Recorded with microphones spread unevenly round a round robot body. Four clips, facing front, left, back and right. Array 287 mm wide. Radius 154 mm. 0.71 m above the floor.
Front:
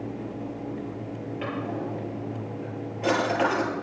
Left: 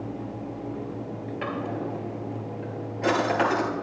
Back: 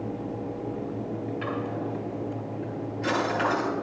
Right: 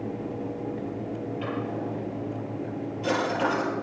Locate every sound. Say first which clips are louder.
1.4 s a drawer: left 3 dB, front 3 dB; 60° left, 7.5 m